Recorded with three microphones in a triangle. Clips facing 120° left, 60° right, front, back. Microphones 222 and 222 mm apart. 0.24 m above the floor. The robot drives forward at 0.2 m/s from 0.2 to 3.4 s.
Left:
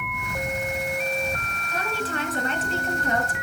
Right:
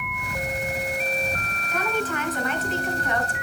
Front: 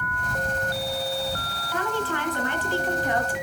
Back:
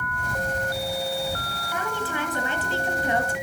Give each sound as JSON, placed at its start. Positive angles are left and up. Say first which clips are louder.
{"t": 1.7, "sound": "a woman speaking", "louder": "right 3 dB, front 3 dB", "azimuth_deg": 120, "distance_m": 1.7}